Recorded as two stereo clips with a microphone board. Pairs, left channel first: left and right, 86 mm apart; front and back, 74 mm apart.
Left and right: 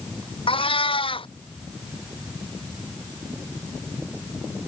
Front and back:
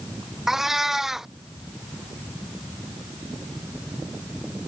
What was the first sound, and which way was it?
A cat meowing, 95° left.